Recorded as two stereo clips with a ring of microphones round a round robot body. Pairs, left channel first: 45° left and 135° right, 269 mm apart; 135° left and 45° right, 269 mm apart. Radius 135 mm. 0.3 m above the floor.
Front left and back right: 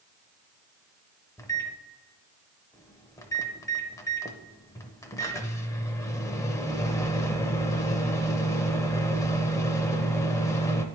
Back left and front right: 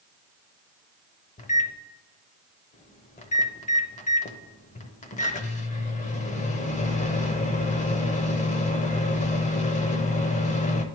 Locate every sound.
1.4 s a microwave: 110° left, 0.7 m